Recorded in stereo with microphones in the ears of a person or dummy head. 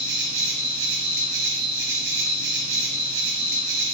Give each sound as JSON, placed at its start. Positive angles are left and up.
{"t": 0.0, "sound": "an insect", "side_deg": -65, "distance_m": 1.0}